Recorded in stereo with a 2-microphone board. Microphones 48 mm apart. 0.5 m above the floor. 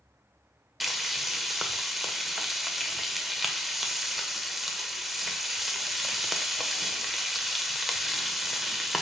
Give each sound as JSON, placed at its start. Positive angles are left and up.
{"t": 0.8, "sound": "frying", "side_deg": -5, "distance_m": 1.1}